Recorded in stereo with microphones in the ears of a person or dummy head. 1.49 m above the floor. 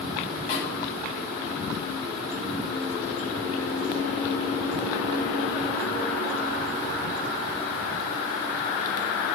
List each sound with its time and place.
0.5 s a snare drum: 55° left (ahead or behind), 1.0 m